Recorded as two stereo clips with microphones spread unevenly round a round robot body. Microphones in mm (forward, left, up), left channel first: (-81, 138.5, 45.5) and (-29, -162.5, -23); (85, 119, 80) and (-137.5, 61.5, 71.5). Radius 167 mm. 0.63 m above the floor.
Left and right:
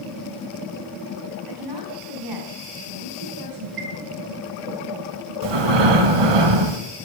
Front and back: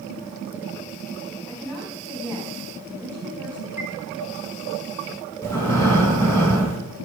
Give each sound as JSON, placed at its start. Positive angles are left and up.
{"t": 1.5, "sound": "a woman speaking", "azimuth_deg": -70, "distance_m": 4.5}
{"t": 3.8, "sound": "a chime", "azimuth_deg": -50, "distance_m": 1.8}
{"t": 5.4, "sound": "breathing", "azimuth_deg": -65, "distance_m": 1.1}